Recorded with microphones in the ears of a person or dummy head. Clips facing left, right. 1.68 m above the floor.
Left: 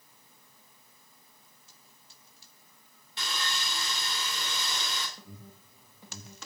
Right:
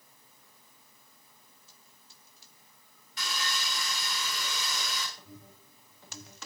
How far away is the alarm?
About 8 m.